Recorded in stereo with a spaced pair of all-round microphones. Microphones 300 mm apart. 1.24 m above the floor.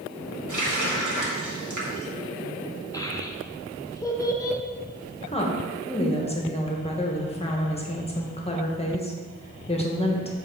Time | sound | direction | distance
0.5 | a running tap | 80° right | 1.4 m
2.9 | a child speaking | 10° left (ahead or behind) | 0.9 m
5.2 | a woman speaking | 20° left (ahead or behind) | 1.1 m